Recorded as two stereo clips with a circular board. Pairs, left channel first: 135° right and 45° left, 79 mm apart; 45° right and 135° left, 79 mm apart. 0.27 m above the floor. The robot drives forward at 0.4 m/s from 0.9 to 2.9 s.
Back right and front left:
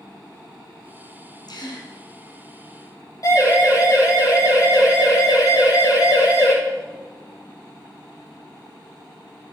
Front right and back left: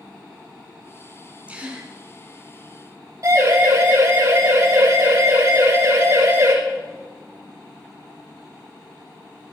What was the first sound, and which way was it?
A gasp, 150° right.